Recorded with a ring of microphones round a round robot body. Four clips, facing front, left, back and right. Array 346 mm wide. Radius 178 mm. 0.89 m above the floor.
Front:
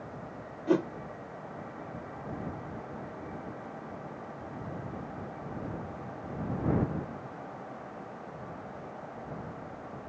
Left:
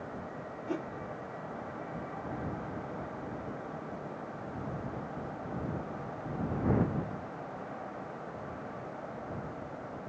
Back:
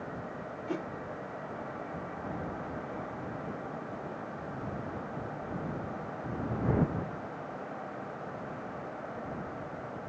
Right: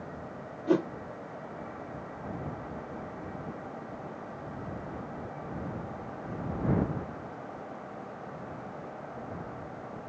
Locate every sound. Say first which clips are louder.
0.7 s a whoosh: right 11 dB, front 10 dB; 50° right